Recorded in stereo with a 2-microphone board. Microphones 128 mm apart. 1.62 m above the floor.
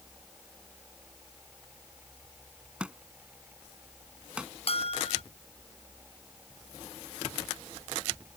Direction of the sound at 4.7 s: 50° left (ahead or behind).